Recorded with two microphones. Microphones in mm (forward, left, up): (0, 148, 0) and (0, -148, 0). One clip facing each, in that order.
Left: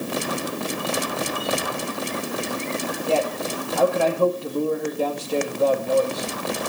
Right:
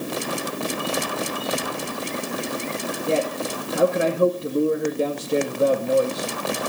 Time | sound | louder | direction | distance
3.1 | a man speaking | even | 25° right (ahead or behind) | 2.0 m